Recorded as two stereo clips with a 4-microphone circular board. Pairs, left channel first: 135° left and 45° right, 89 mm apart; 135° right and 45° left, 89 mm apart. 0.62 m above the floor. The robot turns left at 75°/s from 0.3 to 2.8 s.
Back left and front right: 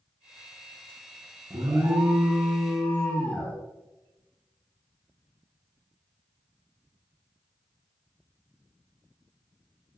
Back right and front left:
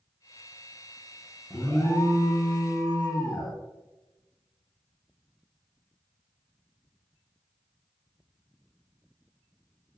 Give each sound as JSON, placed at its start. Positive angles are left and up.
{"t": 1.5, "sound": "an alarm", "azimuth_deg": -55, "distance_m": 0.5}